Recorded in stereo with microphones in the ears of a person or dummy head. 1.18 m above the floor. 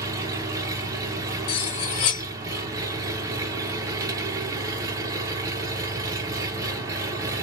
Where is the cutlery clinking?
30° left (ahead or behind), 0.7 m.